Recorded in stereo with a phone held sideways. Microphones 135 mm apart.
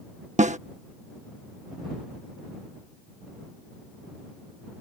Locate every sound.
0.4 s a snare drum: 60° right (ahead or behind)